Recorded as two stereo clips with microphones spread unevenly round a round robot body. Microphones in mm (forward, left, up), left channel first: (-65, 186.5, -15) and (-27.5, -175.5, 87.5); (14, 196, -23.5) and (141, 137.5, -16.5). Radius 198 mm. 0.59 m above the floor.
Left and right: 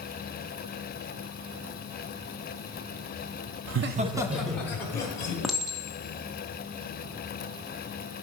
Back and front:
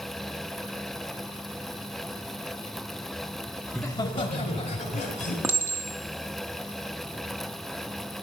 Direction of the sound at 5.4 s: 40° left.